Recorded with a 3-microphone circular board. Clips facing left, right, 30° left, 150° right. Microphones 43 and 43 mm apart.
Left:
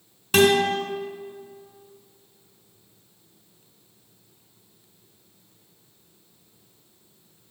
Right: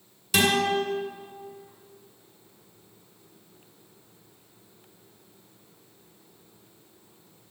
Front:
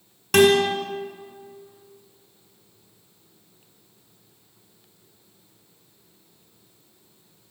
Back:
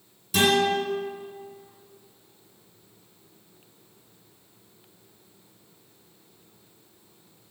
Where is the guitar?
40° left, 1.6 m.